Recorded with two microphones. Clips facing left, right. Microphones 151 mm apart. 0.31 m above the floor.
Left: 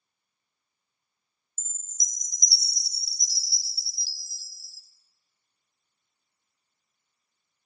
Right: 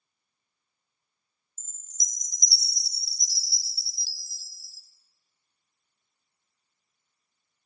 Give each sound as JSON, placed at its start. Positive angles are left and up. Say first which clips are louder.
{"t": 1.6, "sound": "a chime", "louder": "even", "side_deg": 45, "distance_m": 0.5}